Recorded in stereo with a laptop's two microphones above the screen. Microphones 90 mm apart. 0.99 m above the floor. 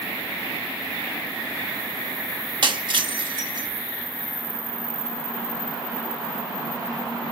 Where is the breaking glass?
60° right (ahead or behind), 1.0 m.